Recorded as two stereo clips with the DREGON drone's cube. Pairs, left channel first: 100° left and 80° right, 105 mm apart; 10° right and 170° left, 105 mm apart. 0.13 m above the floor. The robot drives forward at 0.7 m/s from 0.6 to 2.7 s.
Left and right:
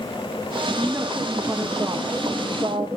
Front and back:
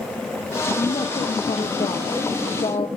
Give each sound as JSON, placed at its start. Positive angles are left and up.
{"t": 0.8, "sound": "a woman speaking", "azimuth_deg": -25, "distance_m": 4.5}